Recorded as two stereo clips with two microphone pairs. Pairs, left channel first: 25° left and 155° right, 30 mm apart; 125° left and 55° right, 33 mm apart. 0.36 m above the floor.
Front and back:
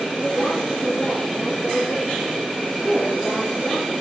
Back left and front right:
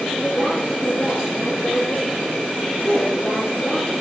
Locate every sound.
0.2 s a woman speaking: 55° left, 6.5 m